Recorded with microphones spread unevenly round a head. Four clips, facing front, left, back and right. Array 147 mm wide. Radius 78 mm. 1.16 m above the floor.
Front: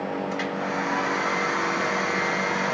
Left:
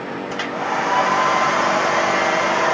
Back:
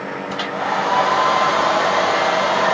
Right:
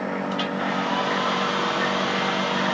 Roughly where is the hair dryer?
Behind left.